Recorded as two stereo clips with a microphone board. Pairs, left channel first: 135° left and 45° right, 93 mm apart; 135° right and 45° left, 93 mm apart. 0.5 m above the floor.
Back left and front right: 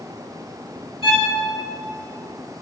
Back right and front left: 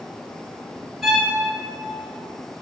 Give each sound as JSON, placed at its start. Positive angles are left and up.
{"t": 1.0, "sound": "a violin", "azimuth_deg": 135, "distance_m": 2.5}